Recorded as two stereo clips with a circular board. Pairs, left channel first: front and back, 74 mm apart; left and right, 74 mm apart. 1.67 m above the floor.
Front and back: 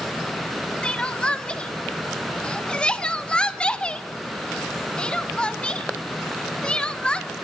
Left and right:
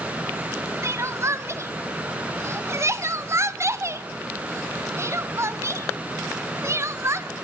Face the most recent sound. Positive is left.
turn(degrees=-70)